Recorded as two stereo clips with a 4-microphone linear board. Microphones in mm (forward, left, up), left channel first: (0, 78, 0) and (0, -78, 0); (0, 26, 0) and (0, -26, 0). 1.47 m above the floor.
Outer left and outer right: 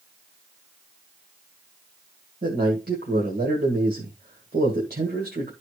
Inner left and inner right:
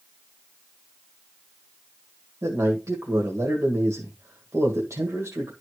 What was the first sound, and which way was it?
A man speaking, 80° right.